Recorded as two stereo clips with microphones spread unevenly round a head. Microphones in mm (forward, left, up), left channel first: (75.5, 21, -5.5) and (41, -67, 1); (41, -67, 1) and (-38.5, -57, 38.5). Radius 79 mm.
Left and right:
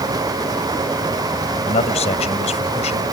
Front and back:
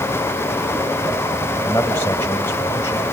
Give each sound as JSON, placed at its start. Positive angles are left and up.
{"t": 1.6, "sound": "a man speaking", "azimuth_deg": 70}